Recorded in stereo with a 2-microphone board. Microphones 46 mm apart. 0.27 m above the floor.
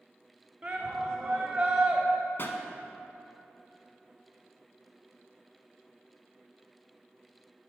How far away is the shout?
About 0.9 m.